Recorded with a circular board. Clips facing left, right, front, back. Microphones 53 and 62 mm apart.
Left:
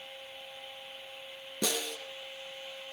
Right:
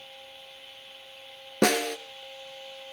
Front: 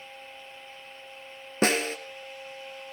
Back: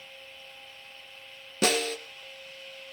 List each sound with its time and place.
1.6 s a snare drum: 55° right, 1.6 m